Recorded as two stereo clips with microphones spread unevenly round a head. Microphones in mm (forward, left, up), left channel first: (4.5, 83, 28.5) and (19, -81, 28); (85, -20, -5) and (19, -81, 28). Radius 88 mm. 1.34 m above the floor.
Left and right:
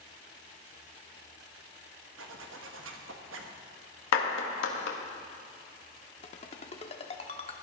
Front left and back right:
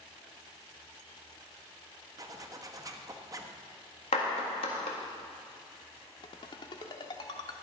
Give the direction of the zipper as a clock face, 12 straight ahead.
3 o'clock.